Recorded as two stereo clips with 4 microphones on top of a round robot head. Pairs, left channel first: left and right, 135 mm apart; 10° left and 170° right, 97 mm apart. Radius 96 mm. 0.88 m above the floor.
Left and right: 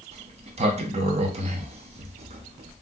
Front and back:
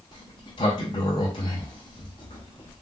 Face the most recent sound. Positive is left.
turn(degrees=-50)